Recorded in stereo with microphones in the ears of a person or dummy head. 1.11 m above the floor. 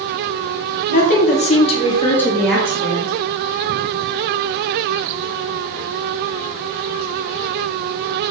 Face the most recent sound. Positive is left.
turn(degrees=-25)  # may be behind; listen again after turning